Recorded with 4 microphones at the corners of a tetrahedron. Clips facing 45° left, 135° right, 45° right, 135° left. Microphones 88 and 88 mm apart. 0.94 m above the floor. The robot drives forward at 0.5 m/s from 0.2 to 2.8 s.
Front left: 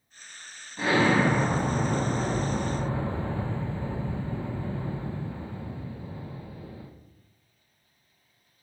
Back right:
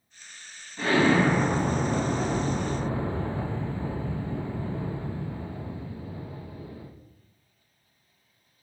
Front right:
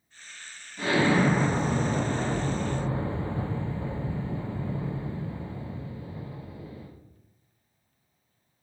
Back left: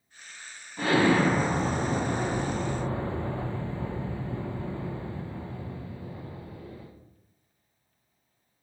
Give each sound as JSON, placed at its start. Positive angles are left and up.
{"t": 0.8, "sound": "an explosion", "azimuth_deg": 115, "distance_m": 1.1}